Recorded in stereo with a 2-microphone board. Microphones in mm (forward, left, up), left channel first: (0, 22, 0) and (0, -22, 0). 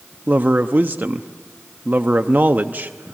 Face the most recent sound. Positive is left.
turn(degrees=-40)  # may be behind; listen again after turning